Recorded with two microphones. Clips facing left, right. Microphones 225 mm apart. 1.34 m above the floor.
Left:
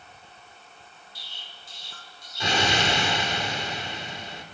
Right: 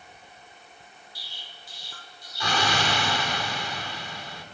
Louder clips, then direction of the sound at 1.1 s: Right 1 dB; 25° left (ahead or behind).